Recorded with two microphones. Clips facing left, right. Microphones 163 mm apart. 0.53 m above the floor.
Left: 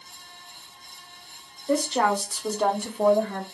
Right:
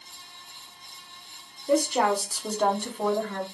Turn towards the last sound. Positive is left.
turn(degrees=20)  # may be behind; listen again after turning